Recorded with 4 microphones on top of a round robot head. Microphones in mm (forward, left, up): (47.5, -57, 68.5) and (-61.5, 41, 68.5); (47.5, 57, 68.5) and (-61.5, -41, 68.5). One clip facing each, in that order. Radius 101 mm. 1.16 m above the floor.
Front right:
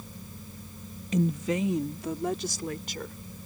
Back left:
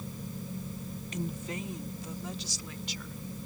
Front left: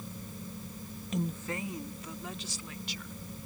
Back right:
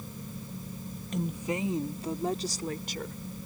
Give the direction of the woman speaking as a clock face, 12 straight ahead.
2 o'clock.